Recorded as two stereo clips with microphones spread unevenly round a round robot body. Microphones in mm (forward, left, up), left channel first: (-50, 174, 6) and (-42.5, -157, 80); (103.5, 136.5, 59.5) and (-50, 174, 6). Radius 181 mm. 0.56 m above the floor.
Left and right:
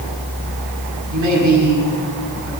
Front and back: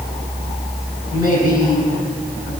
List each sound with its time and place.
1.1 s a man speaking: 125° right, 5.5 m